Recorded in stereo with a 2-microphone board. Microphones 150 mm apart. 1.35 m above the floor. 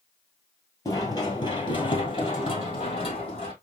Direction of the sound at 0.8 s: 20° left (ahead or behind).